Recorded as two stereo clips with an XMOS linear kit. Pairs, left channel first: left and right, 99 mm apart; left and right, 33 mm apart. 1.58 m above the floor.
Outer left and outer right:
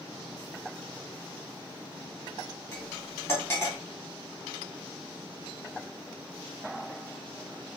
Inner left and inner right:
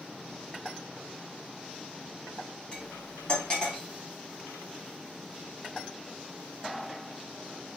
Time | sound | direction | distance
2.7 | cutlery clinking | 25° left (ahead or behind) | 2 m